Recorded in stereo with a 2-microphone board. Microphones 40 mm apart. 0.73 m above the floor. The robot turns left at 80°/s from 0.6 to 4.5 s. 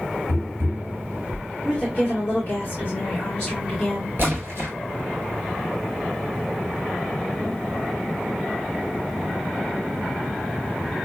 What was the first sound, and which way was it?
Tapping, 75° right (ahead or behind).